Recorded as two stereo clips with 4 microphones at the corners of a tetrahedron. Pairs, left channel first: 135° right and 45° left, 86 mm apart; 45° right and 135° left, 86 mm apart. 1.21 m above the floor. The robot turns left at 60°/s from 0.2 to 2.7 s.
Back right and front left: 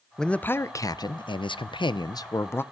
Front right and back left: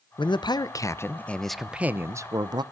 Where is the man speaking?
55° right, 0.7 m; by 2.6 s 160° left, 0.7 m.